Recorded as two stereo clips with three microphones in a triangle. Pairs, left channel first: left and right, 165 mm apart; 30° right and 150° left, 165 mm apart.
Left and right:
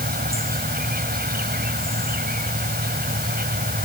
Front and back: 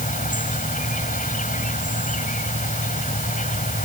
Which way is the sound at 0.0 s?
65° right.